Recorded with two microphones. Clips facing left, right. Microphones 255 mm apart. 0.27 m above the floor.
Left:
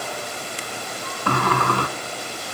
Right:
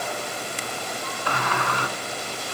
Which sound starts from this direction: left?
A sliding door, at 1.3 s.